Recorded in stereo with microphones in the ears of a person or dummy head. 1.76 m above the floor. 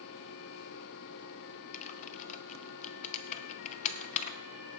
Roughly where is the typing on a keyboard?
Left.